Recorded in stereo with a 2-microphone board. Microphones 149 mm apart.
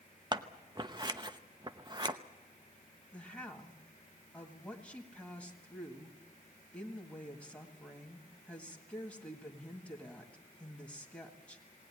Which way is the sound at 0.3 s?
30° right (ahead or behind).